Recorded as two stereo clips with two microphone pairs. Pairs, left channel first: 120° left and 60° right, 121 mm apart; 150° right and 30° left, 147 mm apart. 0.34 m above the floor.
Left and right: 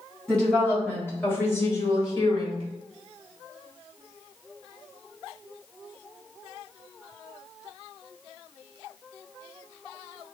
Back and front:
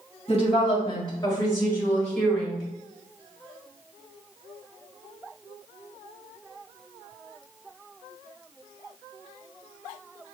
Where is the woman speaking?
160° right, 2.0 m; by 2.6 s 115° left, 1.7 m.